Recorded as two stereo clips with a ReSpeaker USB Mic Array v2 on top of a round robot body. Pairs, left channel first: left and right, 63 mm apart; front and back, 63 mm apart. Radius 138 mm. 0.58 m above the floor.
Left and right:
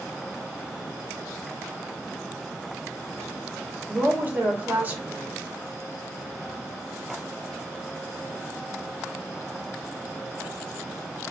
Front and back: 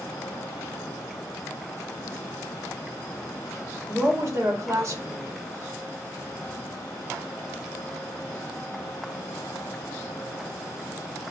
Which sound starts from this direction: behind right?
A woman speaking, at 3.9 s.